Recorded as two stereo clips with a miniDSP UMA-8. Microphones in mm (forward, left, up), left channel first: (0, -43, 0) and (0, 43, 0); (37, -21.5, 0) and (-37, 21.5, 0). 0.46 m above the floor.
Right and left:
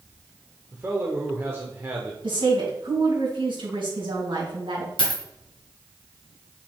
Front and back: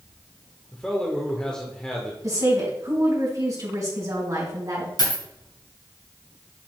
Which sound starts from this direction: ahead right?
A dropped coin, at 5.0 s.